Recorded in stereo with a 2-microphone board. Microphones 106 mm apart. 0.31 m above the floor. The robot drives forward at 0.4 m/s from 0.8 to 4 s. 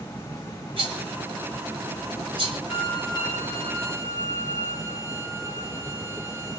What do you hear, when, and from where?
0.8 s a rattle: 65° right (ahead or behind), 3 m; by 2.6 s 55° right (ahead or behind), 3.5 m
2.7 s a violin: 40° left (ahead or behind), 1.0 m; by 6.6 s 25° left (ahead or behind), 1.4 m